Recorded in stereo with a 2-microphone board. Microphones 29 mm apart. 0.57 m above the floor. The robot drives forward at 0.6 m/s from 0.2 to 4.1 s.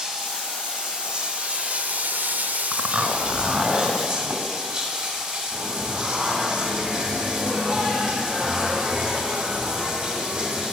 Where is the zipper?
65° right (ahead or behind), 0.6 m; by 4.4 s 25° right (ahead or behind), 1.2 m.